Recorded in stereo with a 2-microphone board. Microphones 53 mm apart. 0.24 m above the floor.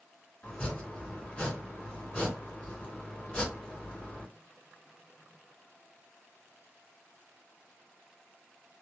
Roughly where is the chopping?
Left.